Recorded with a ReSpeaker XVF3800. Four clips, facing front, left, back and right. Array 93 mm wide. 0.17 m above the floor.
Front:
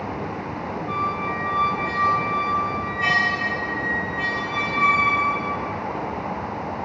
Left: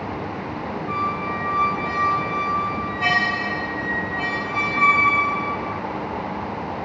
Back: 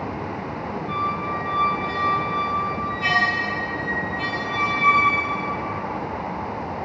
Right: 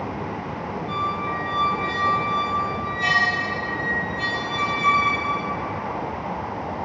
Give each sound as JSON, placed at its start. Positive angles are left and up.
{"t": 0.9, "sound": "a squeak", "azimuth_deg": 75, "distance_m": 1.2}